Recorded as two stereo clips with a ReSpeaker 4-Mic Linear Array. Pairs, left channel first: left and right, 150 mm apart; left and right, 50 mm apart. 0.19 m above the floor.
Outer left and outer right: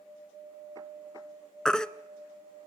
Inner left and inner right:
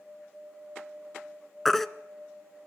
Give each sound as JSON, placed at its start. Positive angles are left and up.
{"t": 1.6, "sound": "a baby crying", "side_deg": 5, "distance_m": 0.8}